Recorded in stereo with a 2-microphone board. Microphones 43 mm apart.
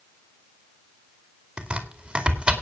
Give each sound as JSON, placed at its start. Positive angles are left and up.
{"t": 1.6, "sound": "chopping", "side_deg": -20, "distance_m": 2.0}